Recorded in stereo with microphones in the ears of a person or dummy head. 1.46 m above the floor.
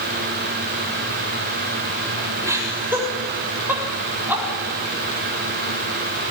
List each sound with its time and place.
2.4 s laughter: 15° right (ahead or behind), 7.5 m; by 4.4 s 10° right (ahead or behind), 8.5 m